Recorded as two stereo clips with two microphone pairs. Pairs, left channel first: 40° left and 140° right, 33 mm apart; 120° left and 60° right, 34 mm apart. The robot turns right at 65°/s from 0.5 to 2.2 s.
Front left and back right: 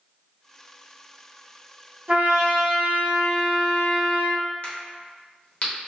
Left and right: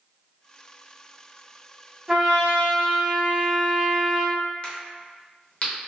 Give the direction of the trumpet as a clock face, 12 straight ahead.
4 o'clock.